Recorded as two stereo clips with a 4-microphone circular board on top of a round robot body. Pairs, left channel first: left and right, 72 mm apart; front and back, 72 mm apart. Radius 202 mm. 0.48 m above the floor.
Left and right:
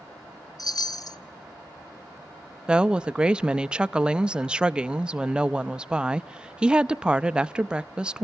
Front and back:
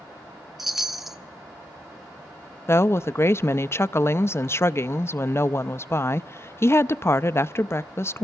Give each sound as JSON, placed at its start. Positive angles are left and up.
{"t": 0.6, "sound": "a chime", "azimuth_deg": 95, "distance_m": 1.3}
{"t": 2.7, "sound": "a woman speaking", "azimuth_deg": -20, "distance_m": 0.8}